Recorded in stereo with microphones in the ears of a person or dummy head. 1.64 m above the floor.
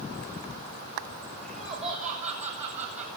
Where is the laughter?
40° right (ahead or behind), 9.5 m; by 3.1 s 35° right (ahead or behind), 8.5 m.